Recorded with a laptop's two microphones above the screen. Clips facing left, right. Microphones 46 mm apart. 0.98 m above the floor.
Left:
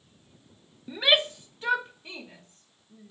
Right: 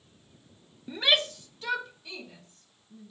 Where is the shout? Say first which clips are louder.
Left 2 dB; centre (ahead or behind), 0.5 m; by 3.1 s 40° left (ahead or behind), 2.5 m.